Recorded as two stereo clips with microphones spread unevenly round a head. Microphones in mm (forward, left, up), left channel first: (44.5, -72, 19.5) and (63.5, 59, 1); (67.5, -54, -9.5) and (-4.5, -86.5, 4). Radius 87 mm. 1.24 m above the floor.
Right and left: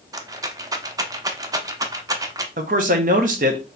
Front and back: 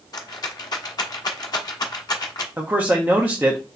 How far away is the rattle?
About 0.8 m.